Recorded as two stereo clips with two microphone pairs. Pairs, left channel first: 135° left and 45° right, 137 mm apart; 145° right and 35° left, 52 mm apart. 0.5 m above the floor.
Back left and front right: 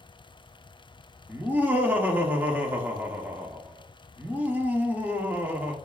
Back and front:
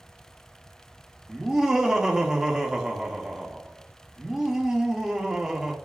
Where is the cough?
I don't hear a cough.